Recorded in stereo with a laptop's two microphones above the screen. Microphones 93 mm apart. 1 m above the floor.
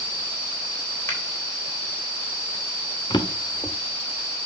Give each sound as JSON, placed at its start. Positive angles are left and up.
{"t": 1.1, "sound": "a finger snap", "side_deg": 30, "distance_m": 3.0}
{"t": 3.1, "sound": "a drawer", "side_deg": 50, "distance_m": 0.9}